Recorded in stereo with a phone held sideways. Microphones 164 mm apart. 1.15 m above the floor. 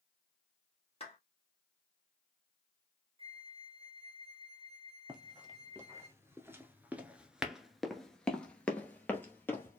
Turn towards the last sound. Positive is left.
turn(degrees=15)  # may be behind; listen again after turning